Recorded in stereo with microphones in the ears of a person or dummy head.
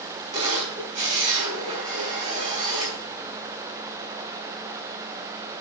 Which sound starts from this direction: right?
A camera shutter, at 0.3 s.